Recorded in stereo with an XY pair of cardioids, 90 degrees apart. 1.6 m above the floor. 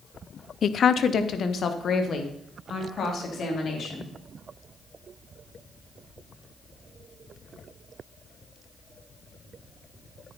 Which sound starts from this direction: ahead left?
A woman speaking, at 0.6 s.